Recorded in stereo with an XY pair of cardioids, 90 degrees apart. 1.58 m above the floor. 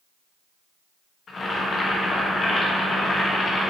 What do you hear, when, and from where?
1.3 s boiling: 55° left, 1.7 m